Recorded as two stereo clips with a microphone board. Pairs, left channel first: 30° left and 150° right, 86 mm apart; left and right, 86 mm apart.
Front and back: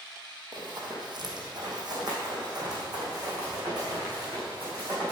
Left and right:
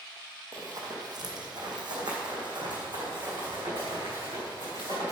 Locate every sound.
0.5 s running footsteps: 130° right, 2.5 m; by 5.1 s 105° right, 7 m